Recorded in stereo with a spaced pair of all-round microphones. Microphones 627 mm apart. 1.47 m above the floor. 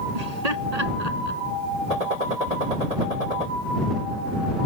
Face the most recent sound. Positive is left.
turn(degrees=-80)